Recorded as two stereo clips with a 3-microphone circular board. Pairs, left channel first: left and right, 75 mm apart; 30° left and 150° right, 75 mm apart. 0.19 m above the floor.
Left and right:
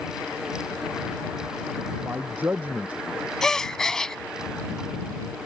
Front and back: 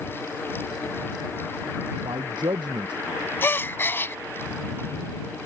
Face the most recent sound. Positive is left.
turn(degrees=15)